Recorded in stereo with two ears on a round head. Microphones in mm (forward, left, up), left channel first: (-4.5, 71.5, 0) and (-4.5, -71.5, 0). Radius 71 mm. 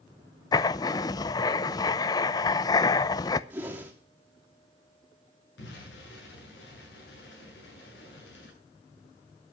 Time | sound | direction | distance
0.5 | writing | 25° left (ahead or behind) | 0.7 m
3.5 | a whoosh | 10° right (ahead or behind) | 2.5 m
5.6 | an explosion | 90° left | 9.5 m